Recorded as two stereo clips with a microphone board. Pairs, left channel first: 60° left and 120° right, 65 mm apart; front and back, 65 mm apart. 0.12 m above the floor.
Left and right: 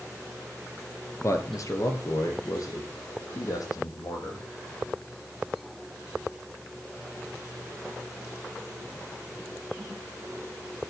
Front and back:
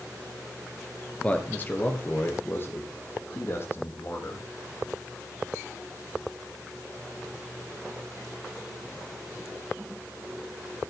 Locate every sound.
1.2 s a man speaking: 65° left, 2 m; by 4.5 s 50° left, 6 m